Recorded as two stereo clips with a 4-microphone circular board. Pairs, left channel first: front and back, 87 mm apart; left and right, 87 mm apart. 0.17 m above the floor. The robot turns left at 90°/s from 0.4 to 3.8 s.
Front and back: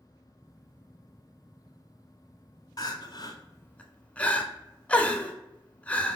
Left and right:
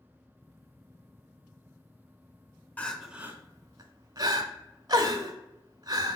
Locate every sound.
2.8 s crying: 20° left, 0.5 m; by 6.2 s 70° right, 0.5 m